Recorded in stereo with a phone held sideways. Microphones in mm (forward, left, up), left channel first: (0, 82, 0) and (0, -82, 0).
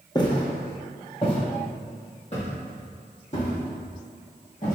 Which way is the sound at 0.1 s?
25° left (ahead or behind).